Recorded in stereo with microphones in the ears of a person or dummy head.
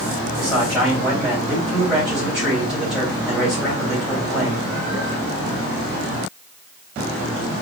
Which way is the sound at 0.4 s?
Centre (ahead or behind).